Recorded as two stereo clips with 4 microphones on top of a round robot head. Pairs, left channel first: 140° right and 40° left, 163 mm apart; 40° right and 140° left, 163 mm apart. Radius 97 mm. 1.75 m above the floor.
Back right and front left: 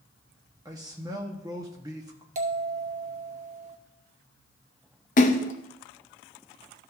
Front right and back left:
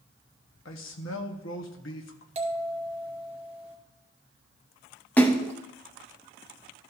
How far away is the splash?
About 0.5 m.